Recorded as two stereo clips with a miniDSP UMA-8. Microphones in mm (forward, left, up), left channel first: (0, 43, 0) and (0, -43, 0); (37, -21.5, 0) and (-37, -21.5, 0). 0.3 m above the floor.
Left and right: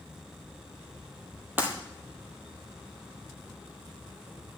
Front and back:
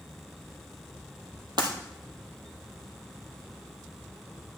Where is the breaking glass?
155° right, 1.7 m.